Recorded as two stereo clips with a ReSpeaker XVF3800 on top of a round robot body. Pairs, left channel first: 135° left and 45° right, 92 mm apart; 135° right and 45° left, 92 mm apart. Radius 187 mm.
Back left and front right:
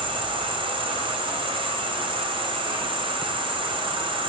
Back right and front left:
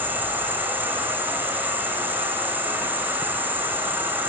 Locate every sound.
0.0 s an insect: 25° right, 2.5 m